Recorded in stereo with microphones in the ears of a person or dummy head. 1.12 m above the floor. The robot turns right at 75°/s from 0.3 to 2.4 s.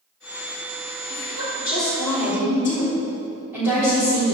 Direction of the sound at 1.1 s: 95° left.